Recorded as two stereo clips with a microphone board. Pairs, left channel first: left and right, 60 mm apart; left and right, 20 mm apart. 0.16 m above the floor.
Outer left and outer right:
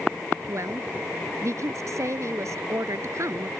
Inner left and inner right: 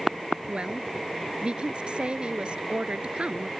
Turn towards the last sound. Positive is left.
turn(degrees=-55)  # may be behind; listen again after turning